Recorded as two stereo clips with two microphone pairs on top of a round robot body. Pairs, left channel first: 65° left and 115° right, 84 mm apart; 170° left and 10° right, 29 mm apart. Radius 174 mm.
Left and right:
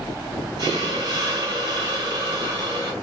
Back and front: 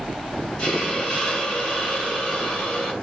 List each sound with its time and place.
0.6 s a hiss: 140° right, 2.5 m